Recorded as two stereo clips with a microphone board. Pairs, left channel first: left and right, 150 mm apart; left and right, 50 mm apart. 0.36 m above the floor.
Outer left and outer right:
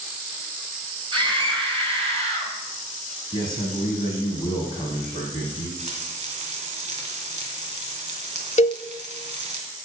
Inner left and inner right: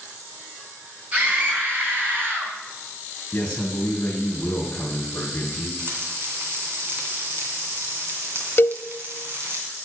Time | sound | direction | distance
1.1 | a scream | 30° right (ahead or behind) | 3.5 m
3.3 | a man speaking | 30° left (ahead or behind) | 2 m
5.8 | frying | 50° right (ahead or behind) | 2.5 m
8.6 | a cowbell | 45° left (ahead or behind) | 0.6 m